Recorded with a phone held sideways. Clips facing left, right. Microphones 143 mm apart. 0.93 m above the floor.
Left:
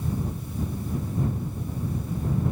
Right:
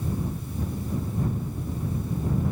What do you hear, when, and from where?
Only background noise.